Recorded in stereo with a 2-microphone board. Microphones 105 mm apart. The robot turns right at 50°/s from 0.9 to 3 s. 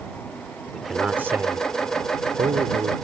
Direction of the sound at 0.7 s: 175° right.